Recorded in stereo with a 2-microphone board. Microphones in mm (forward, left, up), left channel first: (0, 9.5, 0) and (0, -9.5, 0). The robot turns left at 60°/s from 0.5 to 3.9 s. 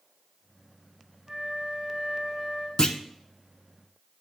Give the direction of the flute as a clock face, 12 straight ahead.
4 o'clock.